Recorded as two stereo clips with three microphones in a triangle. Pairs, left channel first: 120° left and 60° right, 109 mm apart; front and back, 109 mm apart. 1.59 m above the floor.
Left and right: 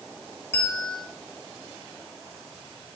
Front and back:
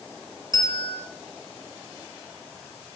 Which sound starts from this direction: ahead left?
A bell, at 0.5 s.